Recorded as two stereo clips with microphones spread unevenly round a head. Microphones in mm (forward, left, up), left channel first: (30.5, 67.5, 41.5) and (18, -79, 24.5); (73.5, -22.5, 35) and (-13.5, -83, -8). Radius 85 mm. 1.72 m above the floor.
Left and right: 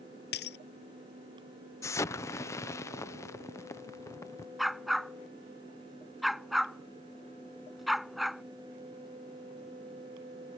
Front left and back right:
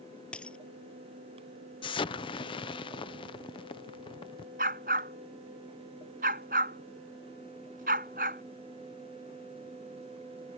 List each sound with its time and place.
0.3 s breaking glass: 115° left
1.8 s an explosion: 20° left
4.6 s a dog barking: 175° left